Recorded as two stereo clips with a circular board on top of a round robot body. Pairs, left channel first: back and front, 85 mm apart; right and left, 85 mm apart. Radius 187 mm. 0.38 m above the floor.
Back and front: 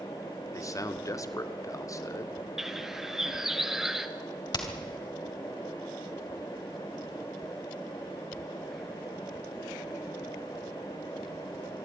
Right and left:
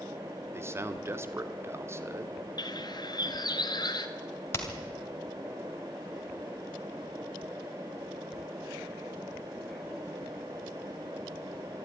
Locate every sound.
0.5 s a man speaking: 140° left, 1.7 m
2.6 s a bird: 85° right, 1.7 m
4.5 s hammering: 150° right, 3 m